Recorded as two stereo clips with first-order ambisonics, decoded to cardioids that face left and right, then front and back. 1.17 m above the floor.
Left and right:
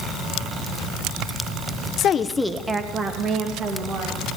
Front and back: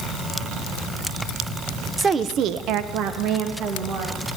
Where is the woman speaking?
105° left, 0.6 m; by 4.4 s 140° right, 2.5 m.